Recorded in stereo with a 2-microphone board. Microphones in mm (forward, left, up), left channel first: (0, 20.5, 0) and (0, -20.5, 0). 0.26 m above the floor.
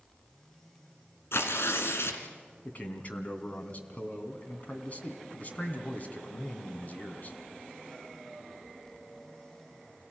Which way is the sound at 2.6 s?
35° left (ahead or behind).